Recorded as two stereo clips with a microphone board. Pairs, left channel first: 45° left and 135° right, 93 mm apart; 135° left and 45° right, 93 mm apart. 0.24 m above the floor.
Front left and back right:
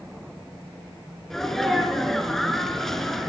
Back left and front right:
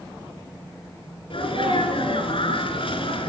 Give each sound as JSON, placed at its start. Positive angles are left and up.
{"t": 1.3, "sound": "a sneeze", "azimuth_deg": 130, "distance_m": 3.5}